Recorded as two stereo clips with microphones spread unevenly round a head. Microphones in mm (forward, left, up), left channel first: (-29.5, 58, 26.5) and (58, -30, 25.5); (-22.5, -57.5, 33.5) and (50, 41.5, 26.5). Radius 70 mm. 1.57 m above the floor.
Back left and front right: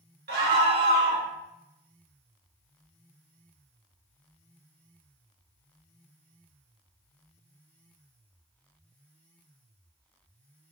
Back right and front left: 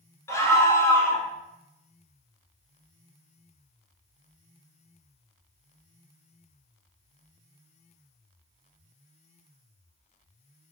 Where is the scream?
60° right, 1.1 m.